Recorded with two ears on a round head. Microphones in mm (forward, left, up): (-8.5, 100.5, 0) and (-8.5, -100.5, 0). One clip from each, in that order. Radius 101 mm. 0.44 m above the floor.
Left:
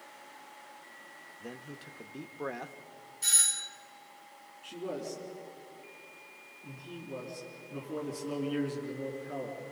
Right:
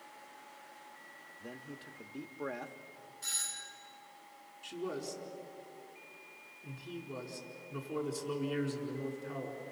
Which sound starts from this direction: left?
A doorbell, at 3.2 s.